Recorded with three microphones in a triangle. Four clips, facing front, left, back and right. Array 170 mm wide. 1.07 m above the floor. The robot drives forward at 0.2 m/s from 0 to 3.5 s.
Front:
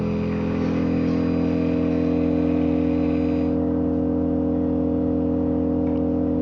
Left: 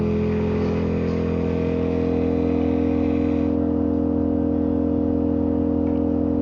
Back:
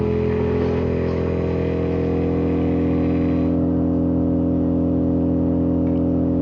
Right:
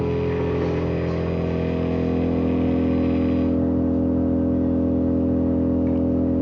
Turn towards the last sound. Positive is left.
turn(degrees=-165)